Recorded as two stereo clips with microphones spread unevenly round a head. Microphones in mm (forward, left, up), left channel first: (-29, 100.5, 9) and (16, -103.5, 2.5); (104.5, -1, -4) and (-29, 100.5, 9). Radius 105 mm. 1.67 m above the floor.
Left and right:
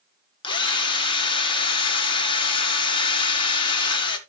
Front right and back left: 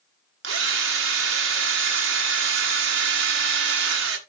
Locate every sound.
0.4 s a drill: 170° left, 1.6 m